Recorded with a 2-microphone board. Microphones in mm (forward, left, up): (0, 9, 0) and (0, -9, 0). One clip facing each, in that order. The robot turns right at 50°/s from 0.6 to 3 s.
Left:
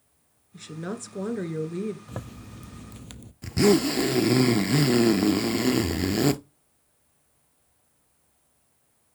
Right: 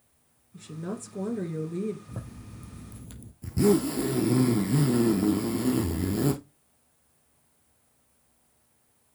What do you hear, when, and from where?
0.5 s a woman speaking: 90° left, 1.4 m; by 2.0 s 160° left, 1.4 m
2.1 s a zipper: 85° left, 0.6 m; by 3.3 s 135° left, 0.6 m
3.4 s a zipper: 50° left (ahead or behind), 0.7 m